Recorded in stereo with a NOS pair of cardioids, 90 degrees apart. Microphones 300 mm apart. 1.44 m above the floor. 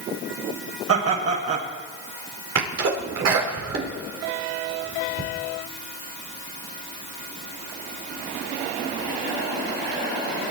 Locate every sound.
0.9 s laughter: 55° right, 8 m
2.5 s a sneeze: 55° right, 5 m